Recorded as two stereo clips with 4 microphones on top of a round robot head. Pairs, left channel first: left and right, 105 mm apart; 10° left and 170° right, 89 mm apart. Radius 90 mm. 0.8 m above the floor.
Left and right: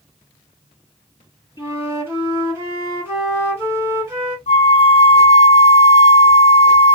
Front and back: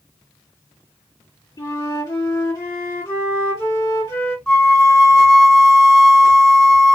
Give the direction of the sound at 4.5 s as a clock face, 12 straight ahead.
9 o'clock.